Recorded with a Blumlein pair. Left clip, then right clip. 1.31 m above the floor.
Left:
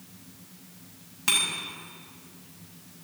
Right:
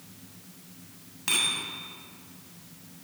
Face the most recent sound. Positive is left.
turn(degrees=10)